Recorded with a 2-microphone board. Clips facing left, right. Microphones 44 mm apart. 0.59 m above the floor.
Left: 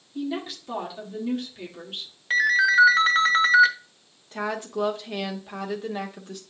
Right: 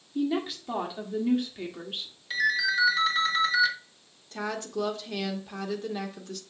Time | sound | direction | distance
0.1 | a woman speaking | 10° right (ahead or behind) | 1.2 m
2.3 | a ringtone | 50° left (ahead or behind) | 1.0 m
4.3 | a woman speaking | 20° left (ahead or behind) | 0.8 m